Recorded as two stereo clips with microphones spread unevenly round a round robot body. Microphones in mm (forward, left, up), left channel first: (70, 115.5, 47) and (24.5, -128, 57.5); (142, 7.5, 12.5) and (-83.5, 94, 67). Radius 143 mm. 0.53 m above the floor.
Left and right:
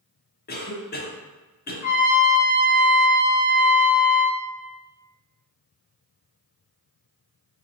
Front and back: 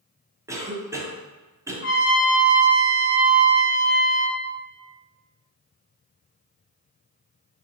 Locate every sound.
0.5 s a cough: 70° left, 0.8 m
1.8 s a trumpet: 15° left, 1.4 m